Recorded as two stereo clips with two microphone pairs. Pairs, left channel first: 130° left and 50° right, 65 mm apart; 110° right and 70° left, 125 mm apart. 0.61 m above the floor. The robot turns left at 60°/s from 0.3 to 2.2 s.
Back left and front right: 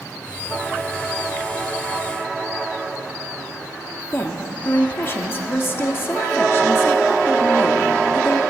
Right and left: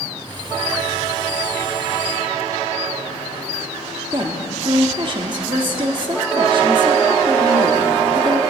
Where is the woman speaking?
100° left, 1.0 m.